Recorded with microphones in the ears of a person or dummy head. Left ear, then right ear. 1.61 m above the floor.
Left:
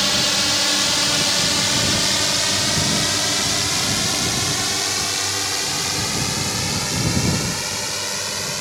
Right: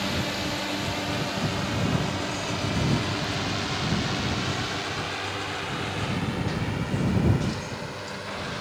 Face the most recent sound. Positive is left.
turn(degrees=65)  # may be behind; listen again after turning